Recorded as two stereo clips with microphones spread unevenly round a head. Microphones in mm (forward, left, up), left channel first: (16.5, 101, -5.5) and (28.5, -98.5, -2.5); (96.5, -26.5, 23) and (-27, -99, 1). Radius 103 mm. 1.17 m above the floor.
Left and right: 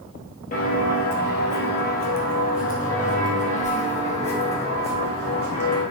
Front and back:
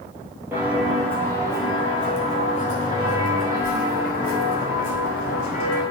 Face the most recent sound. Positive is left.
turn(degrees=30)